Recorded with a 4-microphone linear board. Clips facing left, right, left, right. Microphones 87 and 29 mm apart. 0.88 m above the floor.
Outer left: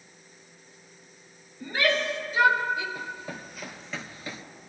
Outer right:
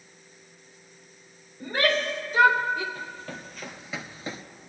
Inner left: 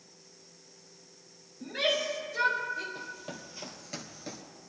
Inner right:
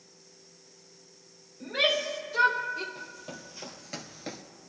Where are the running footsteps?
20° left (ahead or behind), 2 m; by 4.4 s 35° right (ahead or behind), 1.0 m.